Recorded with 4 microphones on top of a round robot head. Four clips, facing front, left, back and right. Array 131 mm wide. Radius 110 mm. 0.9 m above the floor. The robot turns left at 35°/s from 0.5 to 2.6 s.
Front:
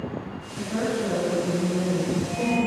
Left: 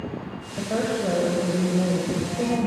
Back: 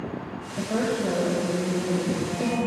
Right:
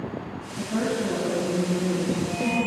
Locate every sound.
0.6 s a woman speaking: 125° left, 6.5 m; by 2.7 s 55° left, 6.5 m